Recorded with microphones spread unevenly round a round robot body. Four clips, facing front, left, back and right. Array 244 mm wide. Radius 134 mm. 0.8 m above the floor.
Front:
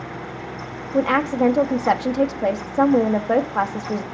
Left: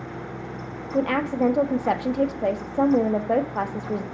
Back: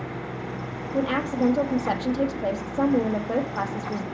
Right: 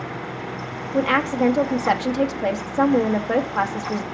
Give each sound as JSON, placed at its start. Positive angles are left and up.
{"t": 0.9, "sound": "a woman speaking", "azimuth_deg": -5, "distance_m": 1.1}